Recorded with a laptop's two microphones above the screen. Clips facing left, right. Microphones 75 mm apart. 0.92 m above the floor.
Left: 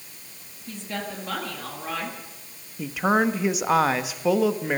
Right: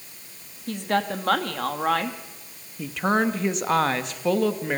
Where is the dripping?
I don't hear dripping.